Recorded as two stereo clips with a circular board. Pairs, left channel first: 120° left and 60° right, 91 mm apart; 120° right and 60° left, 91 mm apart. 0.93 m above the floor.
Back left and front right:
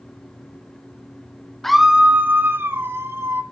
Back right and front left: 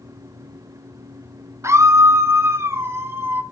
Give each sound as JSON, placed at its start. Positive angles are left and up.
{"t": 1.6, "sound": "a scream", "azimuth_deg": 35, "distance_m": 0.6}